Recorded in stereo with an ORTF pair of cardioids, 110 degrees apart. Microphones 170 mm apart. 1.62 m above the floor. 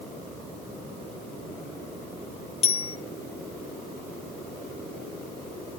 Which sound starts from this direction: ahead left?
A bicycle bell, at 2.6 s.